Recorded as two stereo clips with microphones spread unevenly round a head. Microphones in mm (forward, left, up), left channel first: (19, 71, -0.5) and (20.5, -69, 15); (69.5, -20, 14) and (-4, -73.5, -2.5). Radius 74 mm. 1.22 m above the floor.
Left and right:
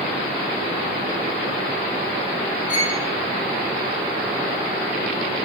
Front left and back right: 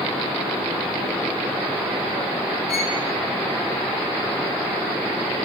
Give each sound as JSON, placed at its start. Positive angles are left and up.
{"t": 2.7, "sound": "a violin", "azimuth_deg": 60, "distance_m": 6.0}